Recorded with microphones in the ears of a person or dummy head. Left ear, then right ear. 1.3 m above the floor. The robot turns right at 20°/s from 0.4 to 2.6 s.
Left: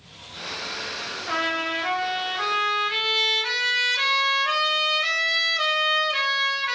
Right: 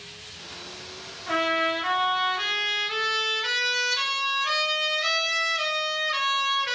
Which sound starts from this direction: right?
A trumpet, at 1.3 s.